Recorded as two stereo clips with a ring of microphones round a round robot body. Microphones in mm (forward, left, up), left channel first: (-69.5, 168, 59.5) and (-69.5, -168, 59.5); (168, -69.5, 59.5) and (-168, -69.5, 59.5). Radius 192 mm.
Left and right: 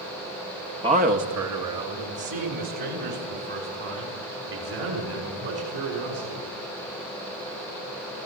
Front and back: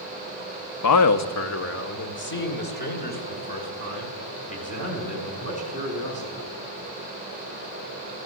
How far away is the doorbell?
No doorbell in this recording.